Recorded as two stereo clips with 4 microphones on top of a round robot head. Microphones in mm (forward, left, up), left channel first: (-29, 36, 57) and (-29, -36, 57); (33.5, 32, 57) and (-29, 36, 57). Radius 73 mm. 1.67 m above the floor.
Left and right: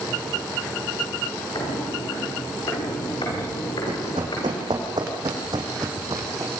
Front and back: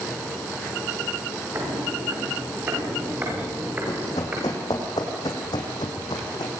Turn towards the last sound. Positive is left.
turn(degrees=-35)